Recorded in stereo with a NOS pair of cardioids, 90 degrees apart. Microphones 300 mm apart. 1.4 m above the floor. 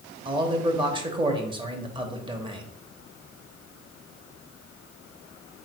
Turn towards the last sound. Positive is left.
turn(degrees=-20)